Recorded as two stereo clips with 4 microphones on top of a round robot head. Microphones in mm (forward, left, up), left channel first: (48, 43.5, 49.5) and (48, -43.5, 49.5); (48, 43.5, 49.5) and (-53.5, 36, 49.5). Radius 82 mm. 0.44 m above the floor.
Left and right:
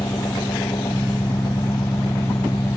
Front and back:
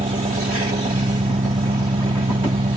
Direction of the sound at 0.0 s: 155° left.